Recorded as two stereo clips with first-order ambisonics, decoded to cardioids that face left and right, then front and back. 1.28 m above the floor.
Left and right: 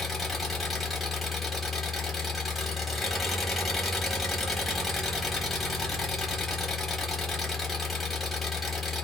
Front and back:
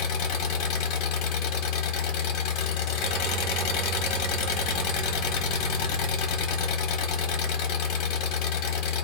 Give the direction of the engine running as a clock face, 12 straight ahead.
12 o'clock.